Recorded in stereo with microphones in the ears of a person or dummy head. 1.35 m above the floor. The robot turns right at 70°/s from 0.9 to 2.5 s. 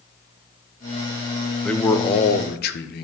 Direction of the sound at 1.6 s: 5° left.